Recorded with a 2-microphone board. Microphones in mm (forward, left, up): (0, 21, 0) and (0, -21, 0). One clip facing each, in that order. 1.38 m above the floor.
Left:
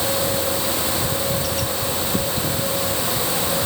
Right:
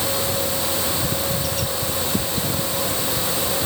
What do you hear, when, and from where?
Only background noise.